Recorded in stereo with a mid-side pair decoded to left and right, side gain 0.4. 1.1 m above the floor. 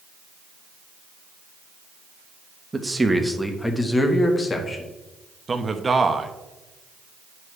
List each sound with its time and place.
2.7 s a man speaking: 20° right, 1.3 m; by 4.8 s 50° left, 1.9 m
5.5 s a man speaking: 30° right, 1.0 m